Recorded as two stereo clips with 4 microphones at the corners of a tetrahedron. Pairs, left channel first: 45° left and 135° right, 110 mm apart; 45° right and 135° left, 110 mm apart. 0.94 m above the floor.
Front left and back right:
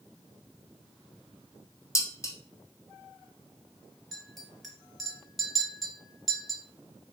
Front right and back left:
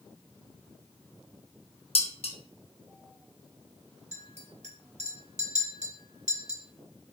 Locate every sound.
1.9 s dishes clattering: 15° right, 0.5 m
4.1 s a clink: 135° left, 1.0 m